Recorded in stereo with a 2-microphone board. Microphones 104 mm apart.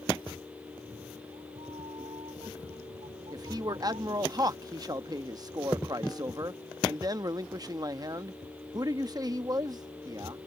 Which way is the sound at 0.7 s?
85° right.